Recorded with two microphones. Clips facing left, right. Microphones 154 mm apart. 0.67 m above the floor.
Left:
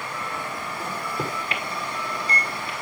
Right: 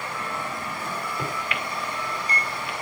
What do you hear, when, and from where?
0.8 s a microwave: 30° left (ahead or behind), 1.7 m